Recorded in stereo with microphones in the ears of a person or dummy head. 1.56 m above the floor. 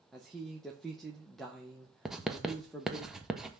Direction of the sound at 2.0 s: Centre (ahead or behind).